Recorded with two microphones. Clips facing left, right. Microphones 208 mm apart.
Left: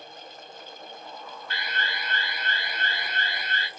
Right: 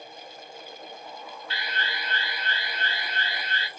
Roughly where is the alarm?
Left.